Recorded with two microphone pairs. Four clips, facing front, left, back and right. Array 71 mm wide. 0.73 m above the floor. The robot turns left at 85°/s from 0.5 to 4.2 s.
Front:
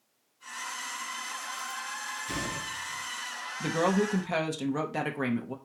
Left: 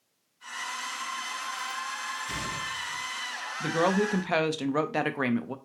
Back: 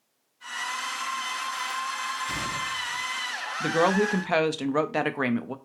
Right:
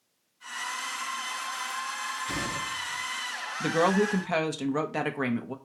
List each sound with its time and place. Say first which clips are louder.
2.3 s a gunshot: right 2 dB, back 4 dB; 125° right, 2.5 m; by 3.0 s 170° left, 2.5 m
3.6 s a woman speaking: right 1 dB, back 4 dB; 140° right, 0.6 m; by 5.5 s 170° left, 0.6 m